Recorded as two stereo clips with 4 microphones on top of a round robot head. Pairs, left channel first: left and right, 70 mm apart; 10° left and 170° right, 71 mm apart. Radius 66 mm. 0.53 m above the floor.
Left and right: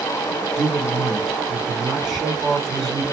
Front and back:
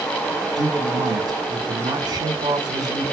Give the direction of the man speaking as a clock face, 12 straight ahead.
6 o'clock.